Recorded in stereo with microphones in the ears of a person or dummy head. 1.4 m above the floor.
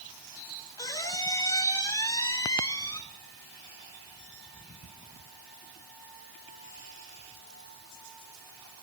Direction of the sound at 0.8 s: 20° left (ahead or behind).